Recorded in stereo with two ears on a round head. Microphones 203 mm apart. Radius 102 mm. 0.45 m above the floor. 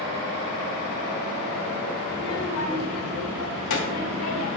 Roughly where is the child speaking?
Left.